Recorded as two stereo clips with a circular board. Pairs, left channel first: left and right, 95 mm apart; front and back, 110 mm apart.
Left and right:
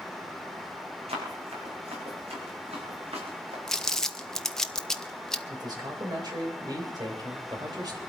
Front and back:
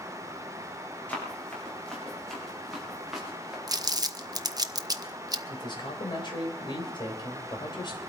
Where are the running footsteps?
80° right, 7 m; by 3.6 s 95° right, 6 m.